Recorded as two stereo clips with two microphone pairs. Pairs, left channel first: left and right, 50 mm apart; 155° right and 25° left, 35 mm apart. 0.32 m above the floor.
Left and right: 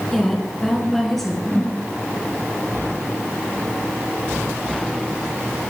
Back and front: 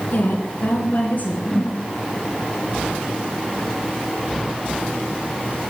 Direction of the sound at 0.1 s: 175° left.